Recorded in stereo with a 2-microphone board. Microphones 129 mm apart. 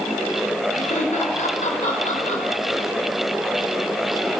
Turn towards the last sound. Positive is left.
turn(degrees=80)